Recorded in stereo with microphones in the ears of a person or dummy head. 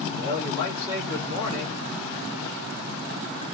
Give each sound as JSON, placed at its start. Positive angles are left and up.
{"t": 0.2, "sound": "a man speaking", "side_deg": 30, "distance_m": 6.5}